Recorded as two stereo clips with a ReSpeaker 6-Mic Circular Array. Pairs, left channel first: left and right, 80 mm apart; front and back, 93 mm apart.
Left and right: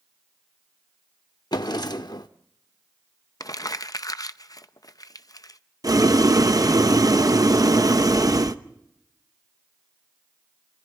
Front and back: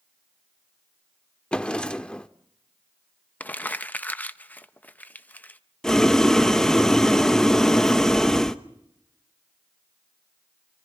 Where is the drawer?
75° left, 0.7 m.